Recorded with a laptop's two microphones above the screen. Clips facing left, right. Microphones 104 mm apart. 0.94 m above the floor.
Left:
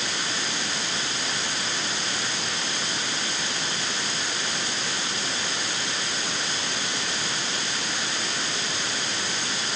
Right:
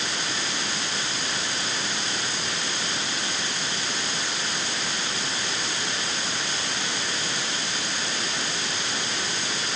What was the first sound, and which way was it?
Only background noise.